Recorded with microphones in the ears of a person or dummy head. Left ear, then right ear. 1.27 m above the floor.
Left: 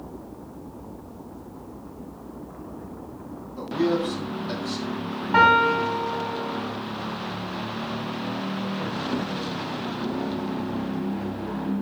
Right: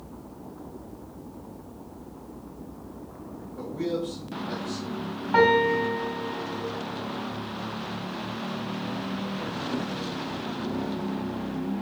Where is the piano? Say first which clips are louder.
Left 3 dB; 5° right (ahead or behind), 0.7 m.